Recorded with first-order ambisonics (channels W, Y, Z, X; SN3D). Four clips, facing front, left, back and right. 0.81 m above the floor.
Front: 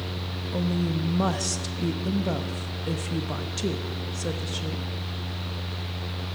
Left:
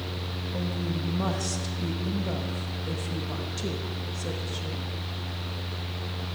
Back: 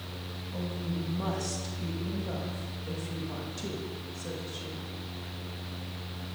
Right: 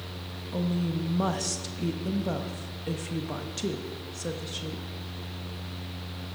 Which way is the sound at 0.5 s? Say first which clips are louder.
Right 3 dB, front 8 dB; 15° right.